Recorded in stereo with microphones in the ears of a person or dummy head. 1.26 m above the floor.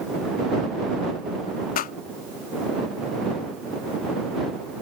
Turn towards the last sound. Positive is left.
turn(degrees=50)  # may be behind; listen again after turning